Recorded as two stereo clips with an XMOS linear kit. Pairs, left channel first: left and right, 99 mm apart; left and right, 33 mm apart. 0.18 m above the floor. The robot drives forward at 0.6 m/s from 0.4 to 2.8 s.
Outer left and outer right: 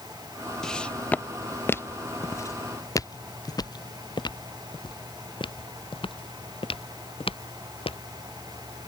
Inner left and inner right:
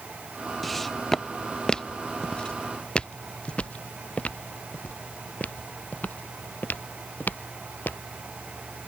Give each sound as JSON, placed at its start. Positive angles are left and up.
{"t": 0.6, "sound": "footsteps", "side_deg": 5}